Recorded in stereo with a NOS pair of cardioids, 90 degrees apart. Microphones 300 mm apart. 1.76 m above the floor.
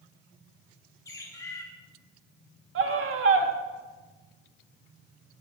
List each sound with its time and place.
1.1 s a bird: 10° left, 4 m
2.8 s a scream: 50° right, 3 m